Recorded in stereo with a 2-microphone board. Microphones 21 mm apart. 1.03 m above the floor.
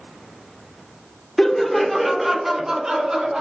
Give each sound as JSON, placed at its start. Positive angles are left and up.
{"t": 1.4, "sound": "laughter", "side_deg": 20, "distance_m": 0.7}